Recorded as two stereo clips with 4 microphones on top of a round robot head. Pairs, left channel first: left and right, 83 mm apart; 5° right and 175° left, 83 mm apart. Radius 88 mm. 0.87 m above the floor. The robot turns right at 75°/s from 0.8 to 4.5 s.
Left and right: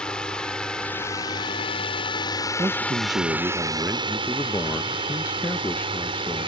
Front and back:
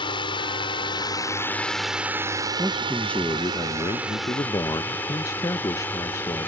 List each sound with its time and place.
0.0 s a drone: 10° left; by 6.5 s 75° right
2.6 s a man speaking: 115° right; by 6.5 s 30° left